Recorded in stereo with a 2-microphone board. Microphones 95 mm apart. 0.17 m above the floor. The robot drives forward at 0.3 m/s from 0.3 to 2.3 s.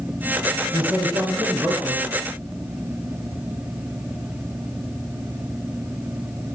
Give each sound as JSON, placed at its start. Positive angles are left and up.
{"t": 0.7, "sound": "a man speaking", "side_deg": -45, "distance_m": 1.3}